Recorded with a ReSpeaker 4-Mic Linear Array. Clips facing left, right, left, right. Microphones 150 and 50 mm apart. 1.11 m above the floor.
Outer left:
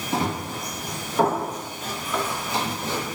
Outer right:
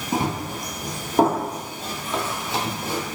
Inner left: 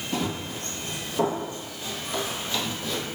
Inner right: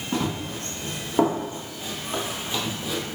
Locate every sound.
0.1 s running footsteps: 50° right (ahead or behind), 2.0 m; by 3.0 s 10° right (ahead or behind), 1.4 m